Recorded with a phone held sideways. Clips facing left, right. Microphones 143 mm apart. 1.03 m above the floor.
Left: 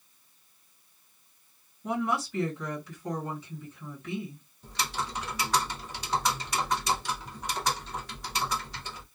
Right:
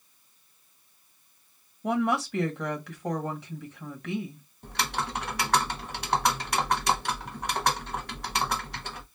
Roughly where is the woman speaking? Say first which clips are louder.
Right 4 dB; right.